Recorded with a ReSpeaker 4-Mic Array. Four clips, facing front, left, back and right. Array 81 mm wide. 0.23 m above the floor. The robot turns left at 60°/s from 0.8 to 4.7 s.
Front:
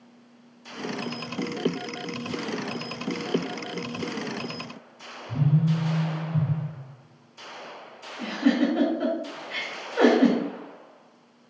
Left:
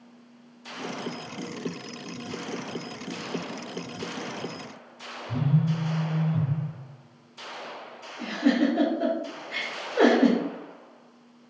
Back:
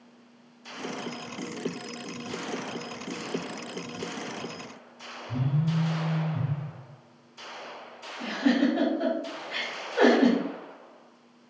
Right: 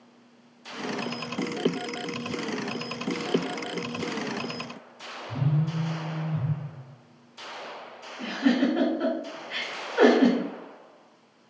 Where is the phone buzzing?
105° left, 0.6 m.